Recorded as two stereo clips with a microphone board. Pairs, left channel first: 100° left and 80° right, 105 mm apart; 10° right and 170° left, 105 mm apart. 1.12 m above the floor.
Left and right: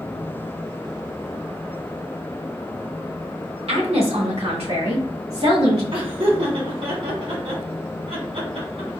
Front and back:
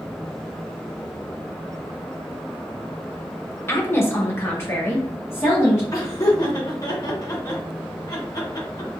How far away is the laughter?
About 1.4 m.